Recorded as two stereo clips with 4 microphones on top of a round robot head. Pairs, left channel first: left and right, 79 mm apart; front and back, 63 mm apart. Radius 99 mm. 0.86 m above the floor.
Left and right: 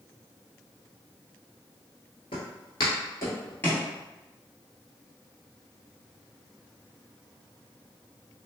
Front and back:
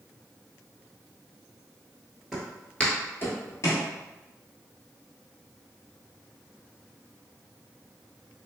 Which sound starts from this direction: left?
Footsteps, at 2.3 s.